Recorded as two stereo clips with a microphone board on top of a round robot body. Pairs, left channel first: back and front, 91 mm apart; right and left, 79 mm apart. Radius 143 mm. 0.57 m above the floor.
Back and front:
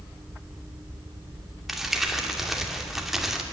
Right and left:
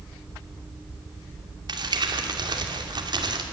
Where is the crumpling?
85° left, 2.5 m.